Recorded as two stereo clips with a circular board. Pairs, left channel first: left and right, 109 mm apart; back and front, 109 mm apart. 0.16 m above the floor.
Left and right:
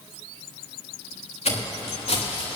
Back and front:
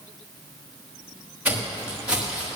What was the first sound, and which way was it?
Footsteps, 75° left.